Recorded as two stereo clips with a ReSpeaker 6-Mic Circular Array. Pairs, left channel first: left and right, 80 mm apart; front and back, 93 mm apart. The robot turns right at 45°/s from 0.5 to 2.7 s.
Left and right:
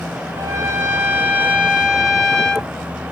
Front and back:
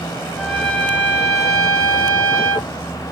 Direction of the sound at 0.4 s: 75° right.